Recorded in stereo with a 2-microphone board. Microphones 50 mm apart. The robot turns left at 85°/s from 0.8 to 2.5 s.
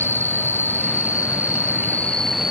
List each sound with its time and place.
0.0 s an insect: 135° left; by 2.5 s 10° right